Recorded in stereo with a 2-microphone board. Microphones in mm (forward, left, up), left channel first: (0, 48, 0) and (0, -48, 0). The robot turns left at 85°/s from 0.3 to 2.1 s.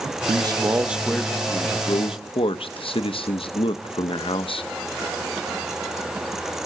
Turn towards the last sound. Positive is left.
turn(degrees=90)